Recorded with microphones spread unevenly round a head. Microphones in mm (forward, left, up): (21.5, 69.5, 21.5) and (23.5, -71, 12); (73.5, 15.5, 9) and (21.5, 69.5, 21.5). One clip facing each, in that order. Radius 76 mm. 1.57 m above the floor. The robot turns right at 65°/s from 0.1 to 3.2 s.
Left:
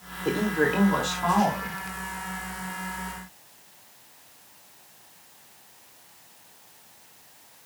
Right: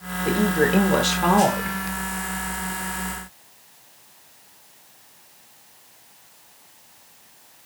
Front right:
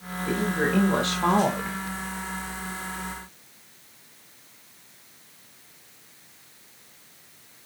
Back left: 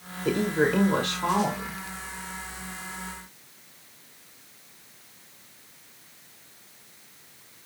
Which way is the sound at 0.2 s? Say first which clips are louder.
Right 4 dB, back left 2 dB; 170° right.